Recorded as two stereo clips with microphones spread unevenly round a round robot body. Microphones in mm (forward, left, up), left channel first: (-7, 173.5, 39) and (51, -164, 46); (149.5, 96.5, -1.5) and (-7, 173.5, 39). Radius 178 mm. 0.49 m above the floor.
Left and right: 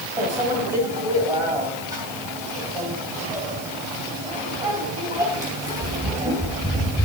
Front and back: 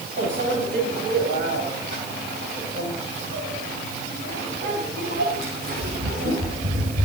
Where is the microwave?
160° right, 3 m.